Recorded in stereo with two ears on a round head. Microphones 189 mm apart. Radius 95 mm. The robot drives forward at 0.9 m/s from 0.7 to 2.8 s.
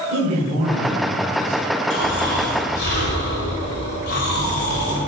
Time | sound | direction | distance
0.1 | a man speaking | 30° right (ahead or behind) | 4 m
1.9 | snoring | 60° left (ahead or behind) | 3.5 m